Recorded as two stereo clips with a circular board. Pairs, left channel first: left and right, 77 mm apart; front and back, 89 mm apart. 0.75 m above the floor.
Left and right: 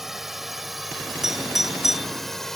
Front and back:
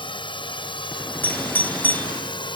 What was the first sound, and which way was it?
A drone, 5° right.